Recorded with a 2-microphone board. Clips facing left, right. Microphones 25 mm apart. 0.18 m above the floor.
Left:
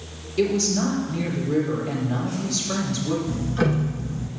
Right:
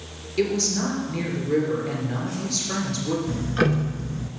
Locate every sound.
0.4 s a woman speaking: 15° right (ahead or behind), 3 m
3.3 s ticking: 35° right (ahead or behind), 0.6 m